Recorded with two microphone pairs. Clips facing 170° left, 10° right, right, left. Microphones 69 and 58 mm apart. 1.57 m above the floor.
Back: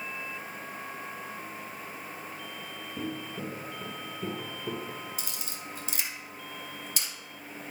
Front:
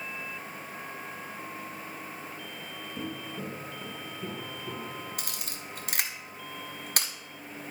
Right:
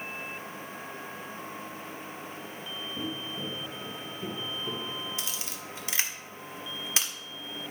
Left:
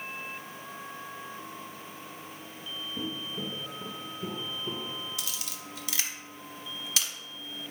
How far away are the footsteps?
About 1.6 m.